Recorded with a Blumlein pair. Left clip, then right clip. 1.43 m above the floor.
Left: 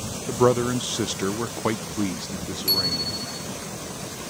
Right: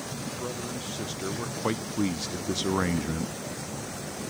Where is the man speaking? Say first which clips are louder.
Left 18 dB; 40° left; by 3.3 s 35° right.